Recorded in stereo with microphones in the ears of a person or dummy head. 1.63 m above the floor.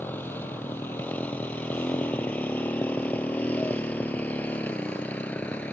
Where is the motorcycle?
5° left (ahead or behind).